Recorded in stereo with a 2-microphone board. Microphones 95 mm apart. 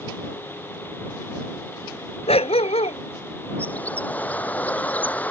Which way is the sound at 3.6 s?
15° left (ahead or behind).